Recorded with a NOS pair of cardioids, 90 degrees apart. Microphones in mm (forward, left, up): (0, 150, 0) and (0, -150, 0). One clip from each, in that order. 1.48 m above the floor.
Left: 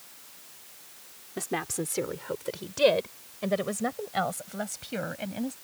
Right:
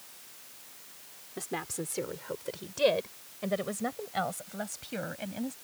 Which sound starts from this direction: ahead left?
A woman speaking, at 1.4 s.